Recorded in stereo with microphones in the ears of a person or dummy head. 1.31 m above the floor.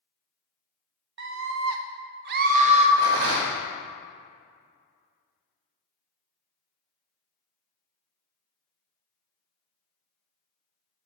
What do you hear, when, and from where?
1.2 s a scream: 55° right (ahead or behind), 0.9 m; by 2.9 s 40° right (ahead or behind), 1.0 m
3.0 s a rattle: 75° right (ahead or behind), 1.5 m